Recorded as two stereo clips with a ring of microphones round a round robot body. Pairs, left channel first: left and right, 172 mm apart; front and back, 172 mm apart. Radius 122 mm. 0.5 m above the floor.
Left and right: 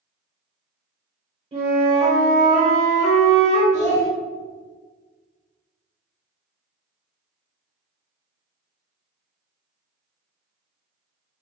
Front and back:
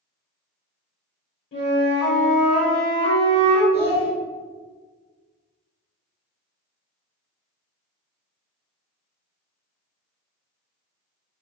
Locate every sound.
1.5 s a flute: 35° right, 1.1 m
3.7 s a child speaking: 55° right, 1.1 m